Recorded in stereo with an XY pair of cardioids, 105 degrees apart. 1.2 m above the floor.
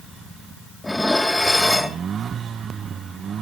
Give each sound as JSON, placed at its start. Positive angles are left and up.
{"t": 0.8, "sound": "dishes clattering", "azimuth_deg": 10, "distance_m": 1.7}